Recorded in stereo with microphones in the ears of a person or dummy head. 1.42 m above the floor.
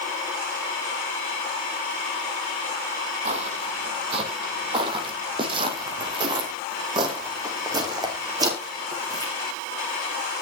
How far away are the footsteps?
About 2.5 m.